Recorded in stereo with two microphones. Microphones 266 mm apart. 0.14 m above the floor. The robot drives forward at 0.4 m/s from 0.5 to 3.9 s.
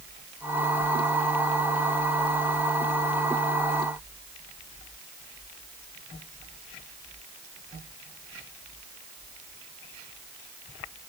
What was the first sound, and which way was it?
Only background noise.